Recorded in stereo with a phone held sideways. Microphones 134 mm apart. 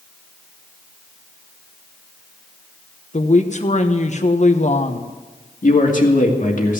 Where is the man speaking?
70° left (ahead or behind), 2.5 m.